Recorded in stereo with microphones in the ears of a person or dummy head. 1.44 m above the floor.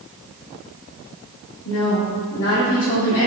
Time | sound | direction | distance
1.6 | a woman speaking | 75° left (ahead or behind) | 3 m